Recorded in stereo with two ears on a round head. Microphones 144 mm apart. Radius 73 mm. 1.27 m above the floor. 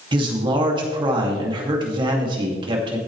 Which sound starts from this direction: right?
A man speaking, at 0.1 s.